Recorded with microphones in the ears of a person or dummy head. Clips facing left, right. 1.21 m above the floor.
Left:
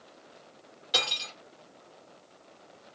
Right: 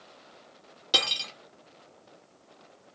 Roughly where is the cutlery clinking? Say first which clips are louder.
Right 1 dB; right.